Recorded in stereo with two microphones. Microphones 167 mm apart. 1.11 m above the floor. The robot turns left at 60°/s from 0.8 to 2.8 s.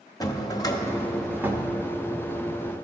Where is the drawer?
25° left, 0.7 m; by 1.7 s 30° right, 0.7 m.